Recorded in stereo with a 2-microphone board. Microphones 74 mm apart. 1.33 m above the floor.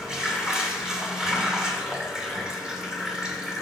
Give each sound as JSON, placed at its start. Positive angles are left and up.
{"t": 0.0, "sound": "running water", "side_deg": -5, "distance_m": 2.5}